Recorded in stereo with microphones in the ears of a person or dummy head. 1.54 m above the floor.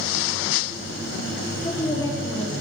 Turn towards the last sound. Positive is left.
turn(degrees=20)  # may be behind; listen again after turning